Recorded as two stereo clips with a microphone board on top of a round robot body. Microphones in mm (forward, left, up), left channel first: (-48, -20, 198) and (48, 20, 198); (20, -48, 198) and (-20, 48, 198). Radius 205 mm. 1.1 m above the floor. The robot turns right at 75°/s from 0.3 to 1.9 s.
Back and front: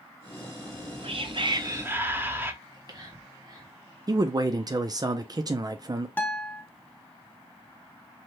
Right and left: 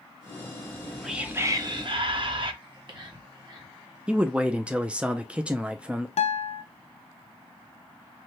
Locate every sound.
0.6 s whispering: 5° right, 1.0 m; by 2.5 s 90° left, 1.0 m
2.6 s whispering: 70° left, 1.7 m
4.1 s a man speaking: 40° left, 0.5 m
6.2 s a guitar: 85° right, 0.5 m